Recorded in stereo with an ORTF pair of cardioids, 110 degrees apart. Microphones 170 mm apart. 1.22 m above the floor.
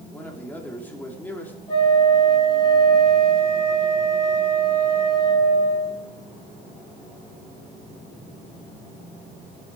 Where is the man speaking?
10° left, 3 m.